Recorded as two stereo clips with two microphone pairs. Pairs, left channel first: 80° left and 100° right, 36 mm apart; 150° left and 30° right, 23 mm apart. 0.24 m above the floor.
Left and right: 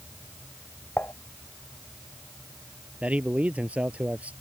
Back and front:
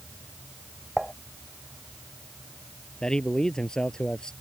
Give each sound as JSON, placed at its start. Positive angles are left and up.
{"t": 1.0, "sound": "dishes clattering", "azimuth_deg": 55}
{"t": 3.0, "sound": "a man speaking", "azimuth_deg": -150}